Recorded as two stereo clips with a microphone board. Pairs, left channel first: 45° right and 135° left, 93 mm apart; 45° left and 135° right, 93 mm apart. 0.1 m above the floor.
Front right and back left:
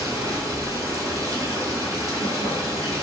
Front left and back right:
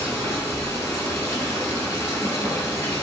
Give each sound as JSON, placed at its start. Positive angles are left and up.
{"t": 0.0, "sound": "running water", "azimuth_deg": 100, "distance_m": 1.4}